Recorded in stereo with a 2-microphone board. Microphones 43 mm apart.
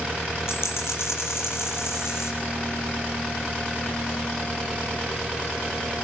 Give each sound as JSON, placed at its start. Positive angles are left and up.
{"t": 0.5, "sound": "a dropped coin", "side_deg": 75, "distance_m": 8.0}